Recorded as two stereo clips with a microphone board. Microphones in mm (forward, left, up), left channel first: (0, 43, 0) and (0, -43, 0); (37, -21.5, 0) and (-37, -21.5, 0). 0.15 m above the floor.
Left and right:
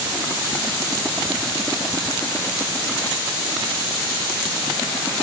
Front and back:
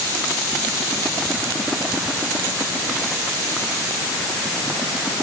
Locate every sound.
Only background noise.